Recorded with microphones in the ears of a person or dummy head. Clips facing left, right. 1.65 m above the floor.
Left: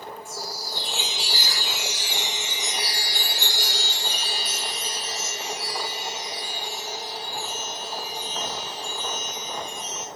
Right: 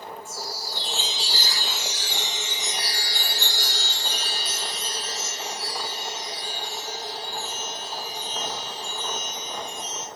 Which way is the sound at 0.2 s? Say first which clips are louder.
Even; 15° left (ahead or behind).